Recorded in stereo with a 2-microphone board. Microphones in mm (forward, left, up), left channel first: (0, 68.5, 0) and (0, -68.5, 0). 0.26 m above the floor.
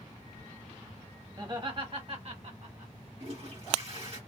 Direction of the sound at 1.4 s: 30° right (ahead or behind).